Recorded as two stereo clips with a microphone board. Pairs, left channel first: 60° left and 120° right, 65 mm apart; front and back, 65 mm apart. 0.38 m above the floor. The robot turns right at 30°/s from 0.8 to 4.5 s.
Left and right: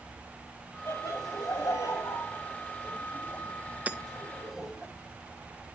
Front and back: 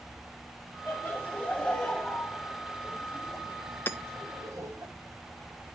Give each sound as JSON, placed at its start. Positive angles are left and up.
{"t": 0.9, "sound": "laughter", "azimuth_deg": 45, "distance_m": 2.5}
{"t": 3.9, "sound": "hammering", "azimuth_deg": -55, "distance_m": 0.6}